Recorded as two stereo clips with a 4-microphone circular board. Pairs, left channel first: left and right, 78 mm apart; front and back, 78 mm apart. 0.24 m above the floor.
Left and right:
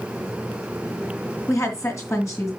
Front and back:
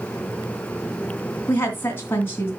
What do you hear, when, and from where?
1.5 s a woman speaking: 55° left, 2.5 m